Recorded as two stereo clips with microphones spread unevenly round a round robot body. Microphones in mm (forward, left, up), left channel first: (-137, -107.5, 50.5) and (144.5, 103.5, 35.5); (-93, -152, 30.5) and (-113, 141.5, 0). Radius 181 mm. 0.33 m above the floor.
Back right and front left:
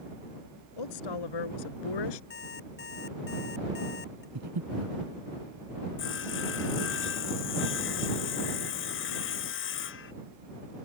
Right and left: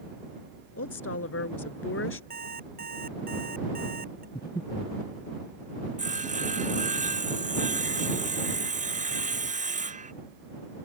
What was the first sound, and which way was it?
A woman speaking, 125° right.